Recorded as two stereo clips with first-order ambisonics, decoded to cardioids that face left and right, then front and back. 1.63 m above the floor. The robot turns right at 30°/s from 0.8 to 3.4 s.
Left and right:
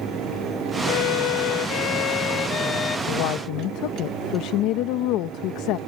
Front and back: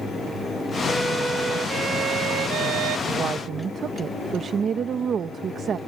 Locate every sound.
0.9 s a violin: 90° left; by 3.0 s 155° left
3.1 s a woman speaking: 110° left; by 5.8 s 120° left